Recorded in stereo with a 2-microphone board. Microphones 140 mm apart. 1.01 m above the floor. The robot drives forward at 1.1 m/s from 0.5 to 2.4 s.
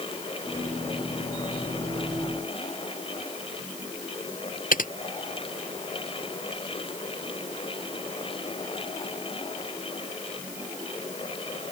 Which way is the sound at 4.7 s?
85° left.